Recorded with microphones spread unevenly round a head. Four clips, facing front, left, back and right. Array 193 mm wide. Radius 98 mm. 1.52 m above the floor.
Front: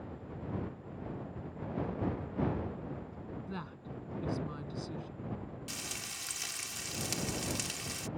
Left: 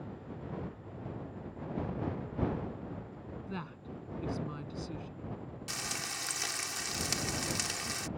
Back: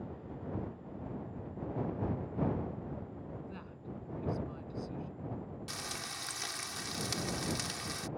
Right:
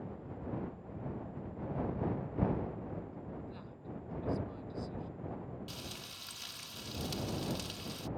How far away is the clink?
I don't hear a clink.